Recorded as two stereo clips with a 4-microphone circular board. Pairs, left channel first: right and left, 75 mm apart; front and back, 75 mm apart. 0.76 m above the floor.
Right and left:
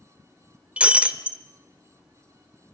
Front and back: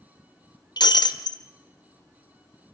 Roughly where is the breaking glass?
Ahead.